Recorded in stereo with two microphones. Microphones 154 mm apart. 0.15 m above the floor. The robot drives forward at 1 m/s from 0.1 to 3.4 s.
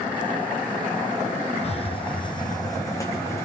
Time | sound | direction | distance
1.6 | a hiss | 45° left (ahead or behind) | 1.3 m